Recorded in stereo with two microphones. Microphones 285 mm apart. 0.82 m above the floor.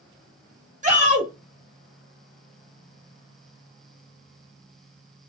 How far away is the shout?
About 1.1 m.